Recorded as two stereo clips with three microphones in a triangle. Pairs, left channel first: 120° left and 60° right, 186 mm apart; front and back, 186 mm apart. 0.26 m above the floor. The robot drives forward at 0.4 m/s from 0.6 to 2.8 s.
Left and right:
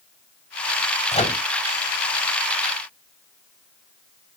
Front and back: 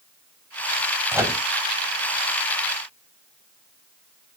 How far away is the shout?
I don't hear a shout.